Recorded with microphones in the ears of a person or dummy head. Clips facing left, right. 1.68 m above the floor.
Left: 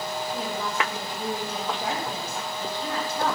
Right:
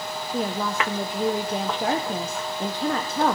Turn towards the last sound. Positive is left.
turn(degrees=-50)  # may be behind; listen again after turning